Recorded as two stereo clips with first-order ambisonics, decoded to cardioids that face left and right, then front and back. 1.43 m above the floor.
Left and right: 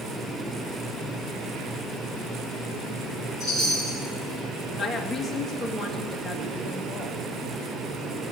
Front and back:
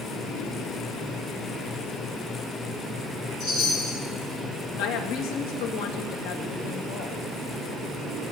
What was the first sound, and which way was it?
A chime, 25° right.